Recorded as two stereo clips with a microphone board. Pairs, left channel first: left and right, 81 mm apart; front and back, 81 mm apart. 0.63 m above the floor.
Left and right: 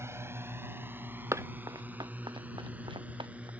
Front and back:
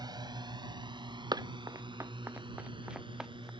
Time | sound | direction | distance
0.0 | a drone | 145° right | ?
1.3 | running footsteps | 145° right | ?